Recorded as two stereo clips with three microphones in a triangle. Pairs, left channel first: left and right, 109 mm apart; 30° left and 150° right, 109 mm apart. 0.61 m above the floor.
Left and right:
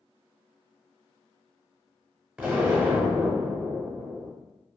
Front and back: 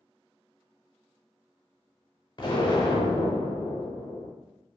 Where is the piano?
I don't hear a piano.